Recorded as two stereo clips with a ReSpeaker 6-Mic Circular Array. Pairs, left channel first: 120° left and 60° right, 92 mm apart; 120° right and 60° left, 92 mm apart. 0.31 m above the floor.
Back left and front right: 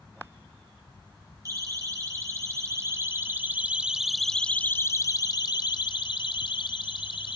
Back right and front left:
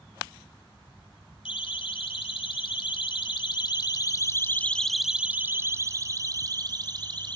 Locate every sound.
1.4 s a siren: 110° right, 3.5 m; by 7.4 s 95° left, 3 m